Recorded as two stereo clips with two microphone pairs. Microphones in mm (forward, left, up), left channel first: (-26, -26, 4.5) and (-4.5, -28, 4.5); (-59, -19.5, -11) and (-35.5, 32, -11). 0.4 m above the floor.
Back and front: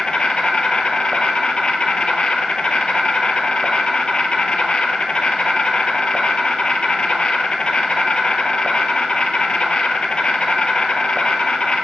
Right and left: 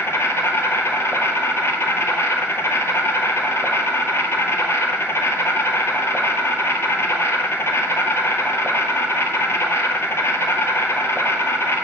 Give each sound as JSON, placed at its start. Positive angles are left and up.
{"t": 0.0, "sound": "an insect", "azimuth_deg": -150, "distance_m": 0.8}